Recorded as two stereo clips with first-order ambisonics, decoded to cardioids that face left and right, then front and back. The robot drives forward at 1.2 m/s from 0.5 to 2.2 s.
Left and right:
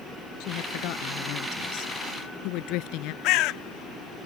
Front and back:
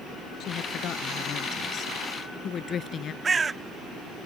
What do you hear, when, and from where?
0.4 s a woman speaking: 55° left; by 3.1 s 65° left
3.2 s a bird: 110° left